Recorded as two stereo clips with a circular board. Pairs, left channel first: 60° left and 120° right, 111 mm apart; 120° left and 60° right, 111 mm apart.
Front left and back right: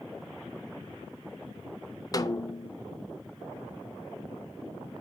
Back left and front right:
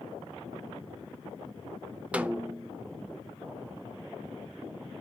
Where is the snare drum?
15° left, 0.6 m.